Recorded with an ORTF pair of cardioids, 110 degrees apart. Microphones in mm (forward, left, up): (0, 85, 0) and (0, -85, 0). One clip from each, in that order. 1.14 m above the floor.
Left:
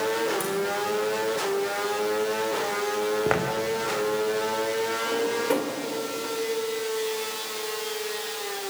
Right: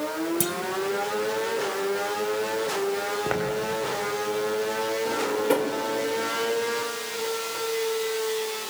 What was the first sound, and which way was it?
A clunk, 65° right.